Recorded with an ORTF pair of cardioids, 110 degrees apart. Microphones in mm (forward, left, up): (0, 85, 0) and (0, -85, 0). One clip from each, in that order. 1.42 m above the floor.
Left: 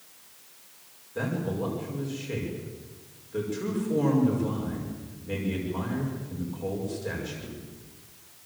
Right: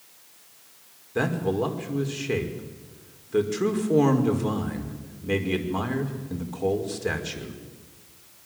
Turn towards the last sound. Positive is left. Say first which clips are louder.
# right 6 dB
turn(degrees=-55)